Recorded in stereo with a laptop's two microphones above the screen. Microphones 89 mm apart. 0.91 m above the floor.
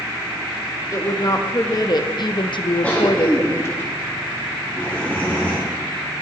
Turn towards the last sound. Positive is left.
turn(degrees=20)  # may be behind; listen again after turning